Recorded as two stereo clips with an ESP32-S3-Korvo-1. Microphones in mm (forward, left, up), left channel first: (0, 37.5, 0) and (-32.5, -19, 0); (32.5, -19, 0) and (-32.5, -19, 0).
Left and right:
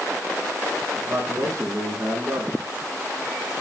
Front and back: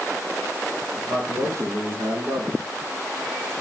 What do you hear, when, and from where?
1.0 s a man speaking: 150° right, 3.5 m